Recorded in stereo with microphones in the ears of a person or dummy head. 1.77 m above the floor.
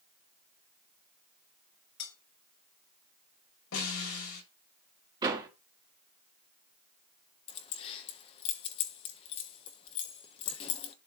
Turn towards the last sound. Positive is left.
turn(degrees=30)  # may be behind; listen again after turning